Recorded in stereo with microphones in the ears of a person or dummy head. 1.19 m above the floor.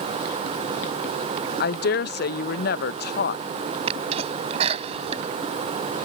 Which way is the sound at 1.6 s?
60° left (ahead or behind).